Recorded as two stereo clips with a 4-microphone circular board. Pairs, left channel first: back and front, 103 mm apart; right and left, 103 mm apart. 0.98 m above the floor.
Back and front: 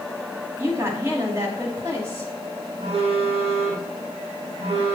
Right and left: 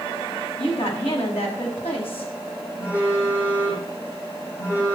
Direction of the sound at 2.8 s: 25° right.